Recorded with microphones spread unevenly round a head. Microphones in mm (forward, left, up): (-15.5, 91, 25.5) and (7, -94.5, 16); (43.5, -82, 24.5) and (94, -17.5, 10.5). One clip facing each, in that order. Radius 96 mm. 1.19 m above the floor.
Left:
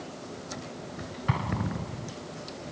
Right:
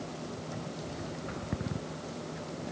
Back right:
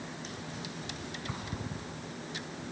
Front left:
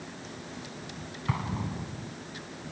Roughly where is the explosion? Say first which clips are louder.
Left 8 dB, front left 10 dB; left.